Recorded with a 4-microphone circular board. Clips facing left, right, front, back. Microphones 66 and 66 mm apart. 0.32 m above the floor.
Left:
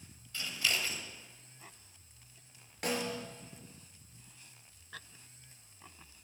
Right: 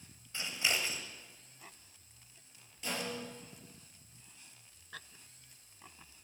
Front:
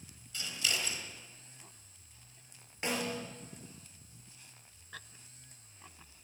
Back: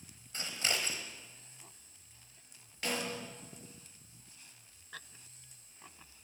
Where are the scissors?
150° right, 1.4 m.